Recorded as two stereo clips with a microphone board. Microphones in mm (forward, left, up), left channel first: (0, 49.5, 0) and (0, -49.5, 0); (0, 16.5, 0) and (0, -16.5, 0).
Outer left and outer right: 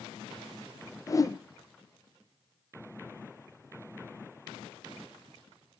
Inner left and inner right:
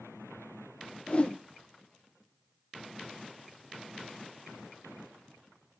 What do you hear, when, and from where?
1.1 s a whoosh: 35° left (ahead or behind), 1.0 m